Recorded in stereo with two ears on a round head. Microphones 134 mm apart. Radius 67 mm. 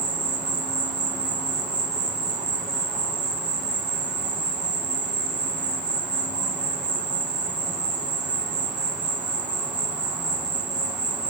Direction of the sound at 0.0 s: 10° right (ahead or behind).